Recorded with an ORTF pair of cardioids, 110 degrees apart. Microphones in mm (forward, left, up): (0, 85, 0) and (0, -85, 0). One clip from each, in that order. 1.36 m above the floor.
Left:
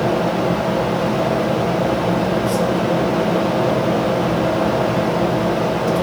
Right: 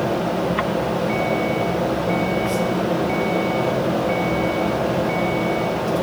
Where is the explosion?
No explosion in this recording.